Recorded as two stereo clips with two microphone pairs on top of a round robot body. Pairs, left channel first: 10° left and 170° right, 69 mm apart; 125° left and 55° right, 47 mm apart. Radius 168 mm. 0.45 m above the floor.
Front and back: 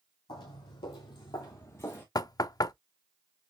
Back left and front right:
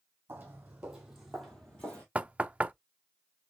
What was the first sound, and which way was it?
Footsteps, straight ahead.